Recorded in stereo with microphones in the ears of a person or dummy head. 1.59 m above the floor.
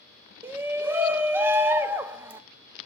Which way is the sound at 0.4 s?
10° right (ahead or behind).